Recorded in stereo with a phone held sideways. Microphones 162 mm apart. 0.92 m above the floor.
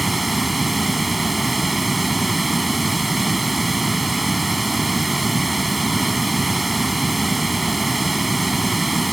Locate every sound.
0.0 s running water: centre (ahead or behind)